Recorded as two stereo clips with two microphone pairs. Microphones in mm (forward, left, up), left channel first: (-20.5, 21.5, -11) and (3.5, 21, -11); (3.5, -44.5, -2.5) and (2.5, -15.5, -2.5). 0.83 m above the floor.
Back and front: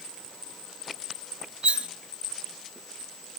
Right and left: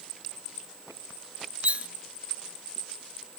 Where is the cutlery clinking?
40° left, 0.5 m.